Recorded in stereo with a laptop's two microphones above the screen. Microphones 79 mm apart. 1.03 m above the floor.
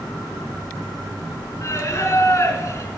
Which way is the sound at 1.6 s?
35° left (ahead or behind).